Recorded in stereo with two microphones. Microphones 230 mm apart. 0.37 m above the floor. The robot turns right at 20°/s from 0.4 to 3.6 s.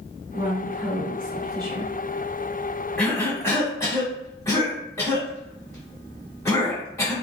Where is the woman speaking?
60° right, 1.5 m; by 1.9 s 30° right, 1.5 m.